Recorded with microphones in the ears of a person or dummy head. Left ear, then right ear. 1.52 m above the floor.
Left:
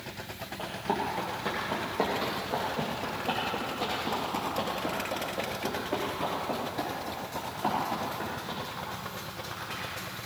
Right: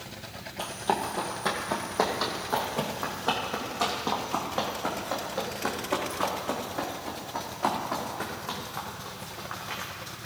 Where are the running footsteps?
50° right (ahead or behind), 2.5 m; by 9.9 s 35° right (ahead or behind), 5.5 m.